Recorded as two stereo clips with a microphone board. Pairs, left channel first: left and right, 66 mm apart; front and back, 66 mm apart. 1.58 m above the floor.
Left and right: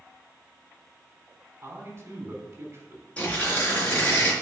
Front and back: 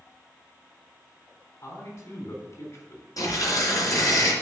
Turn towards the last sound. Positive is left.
turn(degrees=20)